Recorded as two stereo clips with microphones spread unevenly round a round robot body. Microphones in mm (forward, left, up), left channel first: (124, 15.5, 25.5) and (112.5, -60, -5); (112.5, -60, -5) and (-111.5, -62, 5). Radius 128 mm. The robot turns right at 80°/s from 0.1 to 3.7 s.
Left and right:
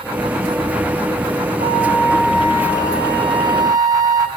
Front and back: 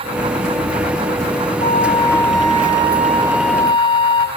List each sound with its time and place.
1.6 s a flute: 125° left, 1.4 m; by 4.3 s 70° right, 1.4 m